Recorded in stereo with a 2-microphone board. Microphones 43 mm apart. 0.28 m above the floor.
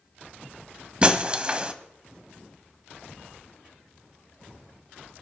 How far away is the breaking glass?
About 1.0 m.